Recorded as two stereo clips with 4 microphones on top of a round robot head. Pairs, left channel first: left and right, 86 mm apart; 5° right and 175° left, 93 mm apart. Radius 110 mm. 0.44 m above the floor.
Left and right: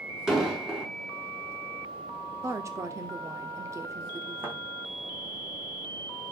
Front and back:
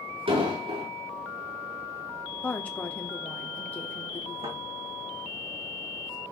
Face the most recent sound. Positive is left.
turn(degrees=-155)